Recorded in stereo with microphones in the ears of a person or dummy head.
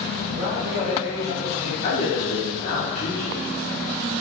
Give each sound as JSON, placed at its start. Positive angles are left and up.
{"t": 0.2, "sound": "a man speaking", "side_deg": -30, "distance_m": 1.3}
{"t": 1.8, "sound": "a man speaking", "side_deg": 40, "distance_m": 1.1}